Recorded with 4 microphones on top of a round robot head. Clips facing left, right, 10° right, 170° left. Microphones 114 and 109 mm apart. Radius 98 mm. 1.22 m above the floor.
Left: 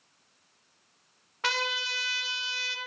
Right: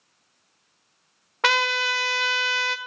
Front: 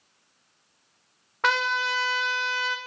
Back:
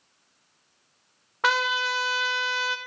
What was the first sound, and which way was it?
A trumpet, 105° right.